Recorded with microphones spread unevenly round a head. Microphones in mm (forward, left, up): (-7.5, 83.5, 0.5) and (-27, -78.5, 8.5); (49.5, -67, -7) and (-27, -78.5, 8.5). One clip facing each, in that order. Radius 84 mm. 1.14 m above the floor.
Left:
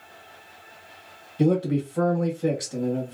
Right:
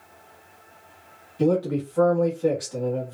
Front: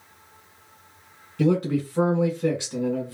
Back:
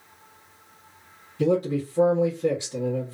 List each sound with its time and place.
1.4 s a man speaking: 20° left, 1.6 m